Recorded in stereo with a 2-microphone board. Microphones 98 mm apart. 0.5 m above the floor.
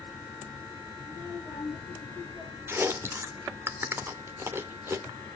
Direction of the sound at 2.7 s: 25° right (ahead or behind).